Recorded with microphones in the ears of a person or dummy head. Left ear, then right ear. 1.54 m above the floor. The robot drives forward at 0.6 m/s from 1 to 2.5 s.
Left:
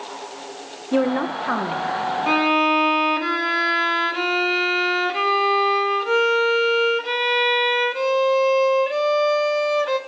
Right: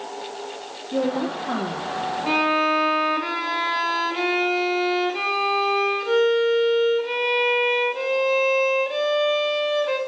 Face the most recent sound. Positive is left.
turn(degrees=35)  # may be behind; listen again after turning